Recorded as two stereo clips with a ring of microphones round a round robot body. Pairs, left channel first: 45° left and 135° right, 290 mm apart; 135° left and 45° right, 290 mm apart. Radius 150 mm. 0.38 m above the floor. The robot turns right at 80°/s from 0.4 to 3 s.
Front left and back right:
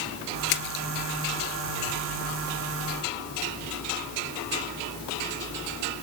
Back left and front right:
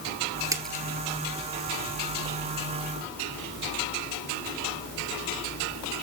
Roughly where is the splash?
Ahead left.